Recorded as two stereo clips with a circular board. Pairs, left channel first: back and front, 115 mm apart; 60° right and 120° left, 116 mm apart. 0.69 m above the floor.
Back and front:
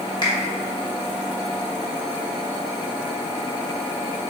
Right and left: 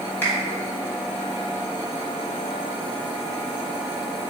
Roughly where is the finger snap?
Behind right.